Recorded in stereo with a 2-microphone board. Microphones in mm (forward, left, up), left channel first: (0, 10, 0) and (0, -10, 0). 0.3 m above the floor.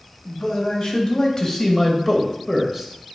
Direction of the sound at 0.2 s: 55° left (ahead or behind).